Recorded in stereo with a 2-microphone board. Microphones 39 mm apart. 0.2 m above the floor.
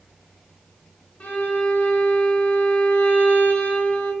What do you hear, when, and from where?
1.2 s a violin: 40° left (ahead or behind), 0.7 m